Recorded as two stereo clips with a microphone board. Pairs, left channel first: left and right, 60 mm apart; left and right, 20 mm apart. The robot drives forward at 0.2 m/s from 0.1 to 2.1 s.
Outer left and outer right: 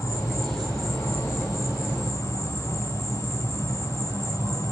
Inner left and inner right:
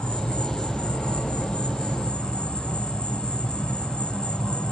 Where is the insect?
65° left (ahead or behind), 3.5 m; by 4.7 s 60° left (ahead or behind), 3.5 m.